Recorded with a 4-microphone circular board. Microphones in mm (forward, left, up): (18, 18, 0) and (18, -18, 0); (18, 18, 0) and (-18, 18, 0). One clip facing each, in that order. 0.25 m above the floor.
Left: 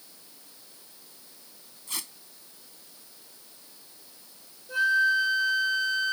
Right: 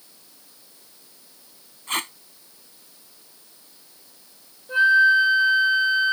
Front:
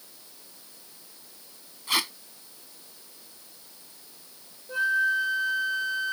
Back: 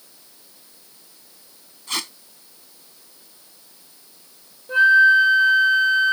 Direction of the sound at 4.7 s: 150° right.